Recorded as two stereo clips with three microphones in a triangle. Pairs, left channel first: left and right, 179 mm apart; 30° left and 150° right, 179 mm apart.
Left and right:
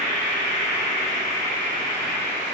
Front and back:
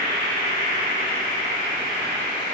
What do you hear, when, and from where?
0.0 s an insect: 80° left, 1.3 m